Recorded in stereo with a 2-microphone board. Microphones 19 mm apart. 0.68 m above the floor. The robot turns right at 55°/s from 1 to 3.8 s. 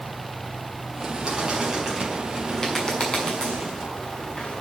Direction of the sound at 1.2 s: 45° right (ahead or behind).